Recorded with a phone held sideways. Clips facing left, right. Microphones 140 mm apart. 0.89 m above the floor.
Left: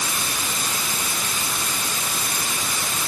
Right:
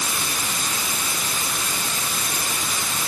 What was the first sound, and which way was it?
Only background noise.